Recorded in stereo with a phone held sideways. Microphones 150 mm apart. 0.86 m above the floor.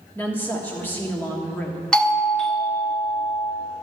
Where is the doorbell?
5° left (ahead or behind), 0.9 m.